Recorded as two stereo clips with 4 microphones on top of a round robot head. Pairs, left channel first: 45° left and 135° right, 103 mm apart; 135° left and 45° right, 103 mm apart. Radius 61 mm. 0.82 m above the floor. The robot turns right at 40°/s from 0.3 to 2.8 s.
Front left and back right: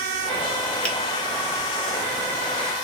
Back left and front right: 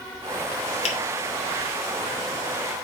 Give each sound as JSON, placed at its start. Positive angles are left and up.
{"t": 0.8, "sound": "a finger snap", "azimuth_deg": 125, "distance_m": 1.8}